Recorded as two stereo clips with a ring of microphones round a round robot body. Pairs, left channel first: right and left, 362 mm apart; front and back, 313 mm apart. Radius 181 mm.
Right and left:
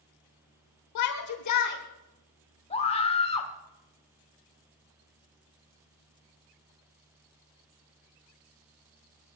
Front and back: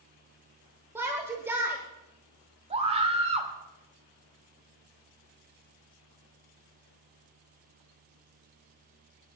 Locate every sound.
0.9 s a shout: 100° right, 1.2 m
2.7 s a scream: 140° right, 1.2 m